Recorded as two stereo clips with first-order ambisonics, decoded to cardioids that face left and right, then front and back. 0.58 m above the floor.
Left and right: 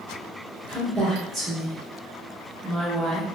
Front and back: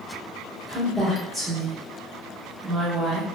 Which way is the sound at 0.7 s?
130° right.